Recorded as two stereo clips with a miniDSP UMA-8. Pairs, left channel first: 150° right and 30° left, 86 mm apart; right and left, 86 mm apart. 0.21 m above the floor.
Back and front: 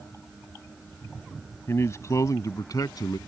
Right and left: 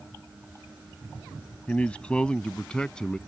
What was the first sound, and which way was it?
A man speaking, 150° right.